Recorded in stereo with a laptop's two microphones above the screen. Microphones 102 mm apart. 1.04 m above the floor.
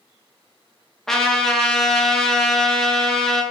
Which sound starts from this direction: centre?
A trumpet, at 1.1 s.